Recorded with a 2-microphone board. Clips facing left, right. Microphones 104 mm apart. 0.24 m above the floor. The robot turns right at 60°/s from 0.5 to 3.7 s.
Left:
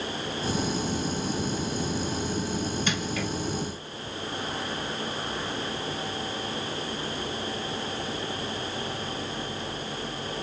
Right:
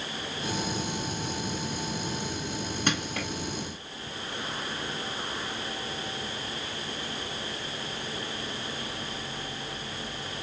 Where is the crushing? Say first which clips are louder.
Left 1 dB; 60° right (ahead or behind), 1.7 m; by 3.3 s 70° right (ahead or behind), 1.7 m.